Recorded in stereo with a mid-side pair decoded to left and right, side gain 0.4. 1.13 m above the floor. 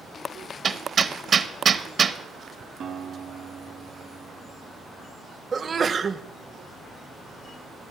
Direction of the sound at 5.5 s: 40° right.